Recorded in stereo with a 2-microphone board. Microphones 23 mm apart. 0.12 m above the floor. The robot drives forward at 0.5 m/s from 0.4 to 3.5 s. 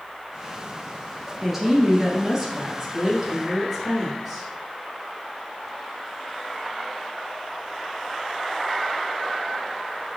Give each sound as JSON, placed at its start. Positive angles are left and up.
{"t": 1.4, "sound": "a woman speaking", "side_deg": -10, "distance_m": 2.0}